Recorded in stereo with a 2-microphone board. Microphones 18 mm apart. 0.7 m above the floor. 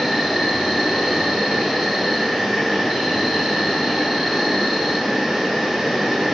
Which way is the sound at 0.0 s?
15° right (ahead or behind).